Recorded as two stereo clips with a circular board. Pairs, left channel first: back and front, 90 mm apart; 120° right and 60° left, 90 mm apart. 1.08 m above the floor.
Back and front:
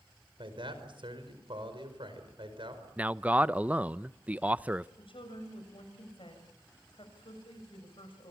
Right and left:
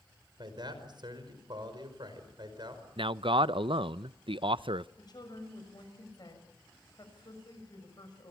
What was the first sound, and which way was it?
A man speaking, 25° left.